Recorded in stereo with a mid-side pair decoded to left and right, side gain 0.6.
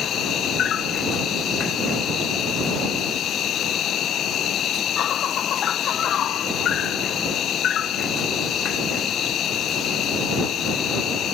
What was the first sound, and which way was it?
An insect, 50° left.